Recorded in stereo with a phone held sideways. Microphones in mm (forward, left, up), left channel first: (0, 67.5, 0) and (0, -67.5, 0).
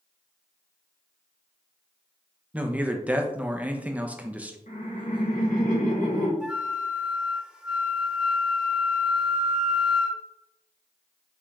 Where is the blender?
I don't hear a blender.